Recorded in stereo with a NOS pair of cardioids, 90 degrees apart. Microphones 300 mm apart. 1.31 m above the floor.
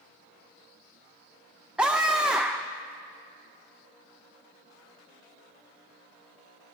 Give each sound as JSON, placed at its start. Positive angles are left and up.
{"t": 1.8, "sound": "a scream", "azimuth_deg": -5, "distance_m": 0.7}